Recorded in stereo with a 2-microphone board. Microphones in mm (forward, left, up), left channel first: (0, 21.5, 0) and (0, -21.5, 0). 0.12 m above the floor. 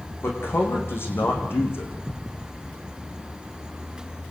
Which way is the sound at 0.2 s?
55° left (ahead or behind).